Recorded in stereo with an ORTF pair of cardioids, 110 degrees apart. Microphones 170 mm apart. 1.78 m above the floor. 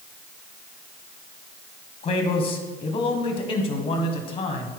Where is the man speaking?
35° left, 1.3 m.